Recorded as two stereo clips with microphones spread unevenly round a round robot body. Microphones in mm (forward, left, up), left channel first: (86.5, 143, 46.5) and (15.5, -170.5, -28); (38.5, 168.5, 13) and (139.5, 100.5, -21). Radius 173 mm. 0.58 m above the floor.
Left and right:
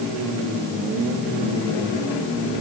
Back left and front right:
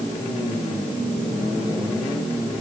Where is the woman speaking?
I don't hear a woman speaking.